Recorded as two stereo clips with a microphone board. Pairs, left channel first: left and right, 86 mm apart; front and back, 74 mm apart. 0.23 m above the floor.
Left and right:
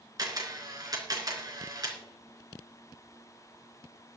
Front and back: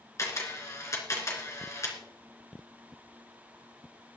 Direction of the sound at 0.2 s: 50° right.